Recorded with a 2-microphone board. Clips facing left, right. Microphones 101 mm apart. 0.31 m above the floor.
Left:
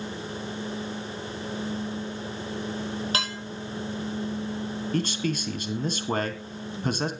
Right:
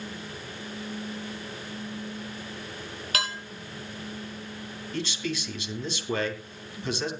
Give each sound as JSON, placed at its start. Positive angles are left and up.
{"t": 3.1, "sound": "dishes clattering", "side_deg": 30, "distance_m": 5.0}
{"t": 4.9, "sound": "a man speaking", "side_deg": 45, "distance_m": 2.5}